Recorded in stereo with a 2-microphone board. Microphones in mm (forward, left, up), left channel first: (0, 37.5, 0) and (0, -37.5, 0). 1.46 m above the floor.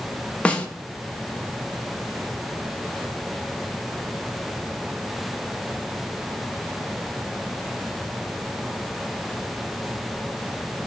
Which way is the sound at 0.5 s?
15° left (ahead or behind).